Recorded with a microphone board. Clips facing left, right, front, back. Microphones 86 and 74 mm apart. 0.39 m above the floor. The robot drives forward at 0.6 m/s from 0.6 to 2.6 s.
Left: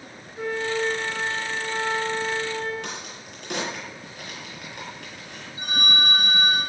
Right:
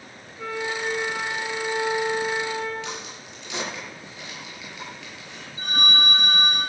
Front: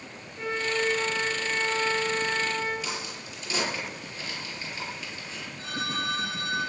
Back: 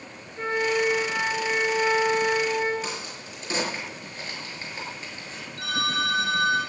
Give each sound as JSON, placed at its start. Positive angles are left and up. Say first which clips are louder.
{"t": 0.4, "sound": "a flute", "louder": "left 3 dB, back 4 dB", "azimuth_deg": 130, "distance_m": 7.5}
{"t": 2.8, "sound": "a crack", "louder": "right 1 dB, back 1 dB", "azimuth_deg": 130, "distance_m": 7.0}
{"t": 5.6, "sound": "a phone ringing", "louder": "right 1 dB, back 5 dB", "azimuth_deg": 165, "distance_m": 9.0}